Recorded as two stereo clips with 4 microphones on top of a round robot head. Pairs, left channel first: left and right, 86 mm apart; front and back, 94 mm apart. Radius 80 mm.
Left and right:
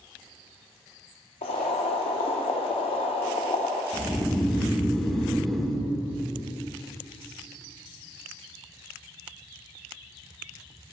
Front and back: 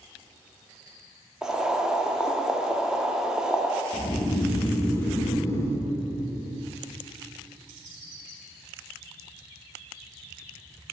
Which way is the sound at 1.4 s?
100° left.